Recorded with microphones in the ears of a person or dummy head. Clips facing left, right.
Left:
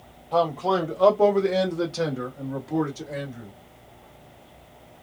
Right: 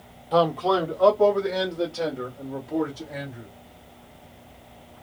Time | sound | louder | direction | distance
0.3 | a man speaking | right 2 dB | 15° right (ahead or behind) | 0.7 m